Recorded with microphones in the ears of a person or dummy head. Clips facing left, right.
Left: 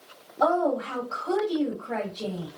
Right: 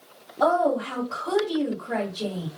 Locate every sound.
0.4 s a woman speaking: 15° right (ahead or behind), 1.8 m